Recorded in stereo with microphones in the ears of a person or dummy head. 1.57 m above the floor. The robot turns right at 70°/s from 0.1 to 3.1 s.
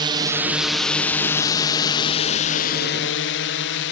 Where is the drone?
20° right (ahead or behind); by 3.9 s 65° left (ahead or behind).